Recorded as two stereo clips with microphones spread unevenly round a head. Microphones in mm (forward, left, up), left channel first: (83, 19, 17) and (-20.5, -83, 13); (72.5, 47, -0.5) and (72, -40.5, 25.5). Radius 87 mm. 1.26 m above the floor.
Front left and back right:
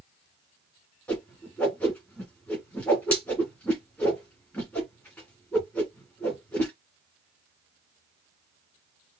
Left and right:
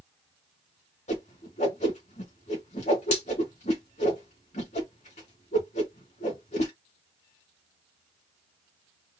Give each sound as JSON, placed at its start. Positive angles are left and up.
{"t": 1.1, "sound": "a whoosh", "azimuth_deg": 125, "distance_m": 2.0}